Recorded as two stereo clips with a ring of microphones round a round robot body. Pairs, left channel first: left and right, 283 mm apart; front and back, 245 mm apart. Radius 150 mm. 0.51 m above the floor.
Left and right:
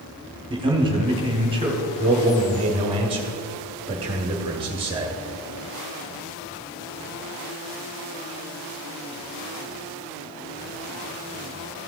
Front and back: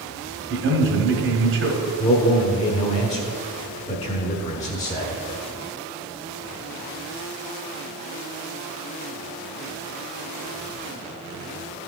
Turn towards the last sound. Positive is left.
turn(degrees=-35)